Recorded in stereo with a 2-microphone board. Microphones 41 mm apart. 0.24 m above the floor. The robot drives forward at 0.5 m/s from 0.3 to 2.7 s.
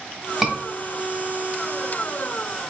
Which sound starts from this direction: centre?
A scream, at 0.4 s.